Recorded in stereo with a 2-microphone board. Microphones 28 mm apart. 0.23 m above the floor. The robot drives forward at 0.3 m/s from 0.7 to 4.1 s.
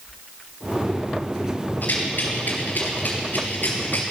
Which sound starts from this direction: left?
A rattle, at 1.8 s.